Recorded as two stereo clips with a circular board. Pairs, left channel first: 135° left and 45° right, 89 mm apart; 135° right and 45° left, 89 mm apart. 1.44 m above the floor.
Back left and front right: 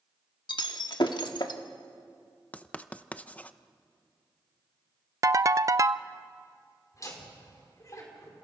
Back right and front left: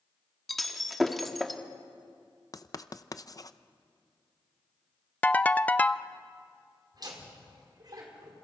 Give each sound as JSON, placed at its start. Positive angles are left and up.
{"t": 0.5, "sound": "breaking glass", "azimuth_deg": 135, "distance_m": 1.4}
{"t": 2.5, "sound": "writing", "azimuth_deg": -155, "distance_m": 0.6}
{"t": 5.2, "sound": "a ringtone", "azimuth_deg": -70, "distance_m": 0.5}
{"t": 6.9, "sound": "laughter", "azimuth_deg": 85, "distance_m": 5.0}